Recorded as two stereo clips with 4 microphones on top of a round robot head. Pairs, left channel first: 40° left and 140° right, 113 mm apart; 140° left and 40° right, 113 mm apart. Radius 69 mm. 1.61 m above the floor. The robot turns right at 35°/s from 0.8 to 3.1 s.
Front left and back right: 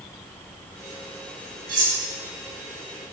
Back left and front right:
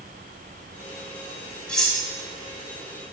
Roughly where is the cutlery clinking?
Behind right.